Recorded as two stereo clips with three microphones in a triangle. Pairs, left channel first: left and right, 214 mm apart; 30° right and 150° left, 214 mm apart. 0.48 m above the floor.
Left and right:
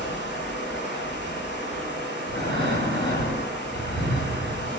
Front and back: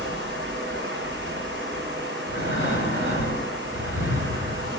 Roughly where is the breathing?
Behind left.